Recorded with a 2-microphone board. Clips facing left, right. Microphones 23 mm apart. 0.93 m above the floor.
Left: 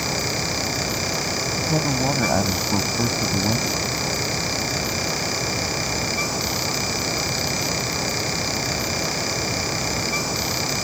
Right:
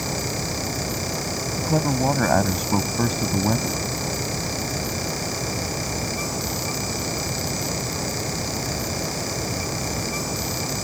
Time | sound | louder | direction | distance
1.6 | a man speaking | right 2 dB | 25° right (ahead or behind) | ?